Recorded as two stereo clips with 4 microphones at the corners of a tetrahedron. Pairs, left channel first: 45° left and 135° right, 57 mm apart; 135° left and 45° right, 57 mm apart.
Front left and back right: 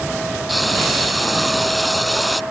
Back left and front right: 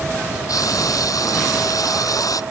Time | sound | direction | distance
0.5 | frying | 135° left | ?